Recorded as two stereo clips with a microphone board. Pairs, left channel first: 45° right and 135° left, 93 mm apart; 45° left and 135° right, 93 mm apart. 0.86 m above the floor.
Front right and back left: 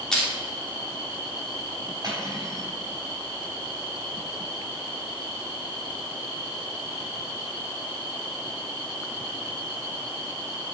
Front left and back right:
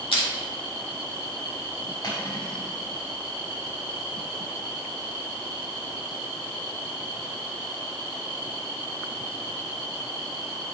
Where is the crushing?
35° left, 3 m.